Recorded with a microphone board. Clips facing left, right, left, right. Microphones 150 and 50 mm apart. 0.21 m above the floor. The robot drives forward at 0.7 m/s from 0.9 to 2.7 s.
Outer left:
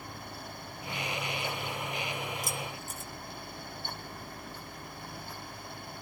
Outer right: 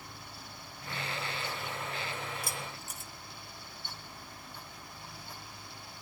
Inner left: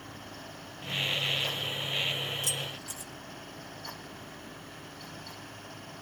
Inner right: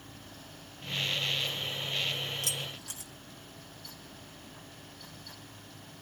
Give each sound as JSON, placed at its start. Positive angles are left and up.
{"t": 2.4, "sound": "keys jangling", "side_deg": -65, "distance_m": 3.0}